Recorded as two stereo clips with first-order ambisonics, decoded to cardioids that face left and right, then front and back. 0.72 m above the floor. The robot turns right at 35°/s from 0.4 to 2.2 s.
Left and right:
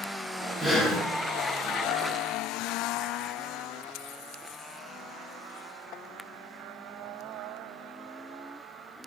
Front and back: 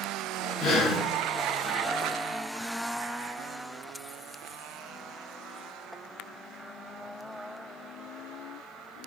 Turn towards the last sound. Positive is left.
turn(degrees=45)